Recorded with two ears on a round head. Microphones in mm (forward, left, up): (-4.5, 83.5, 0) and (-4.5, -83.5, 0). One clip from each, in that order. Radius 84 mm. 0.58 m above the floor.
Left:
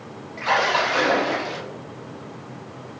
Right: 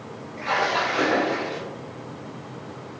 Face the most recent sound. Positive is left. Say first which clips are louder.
# left 3 dB
turn(degrees=40)  # may be behind; listen again after turning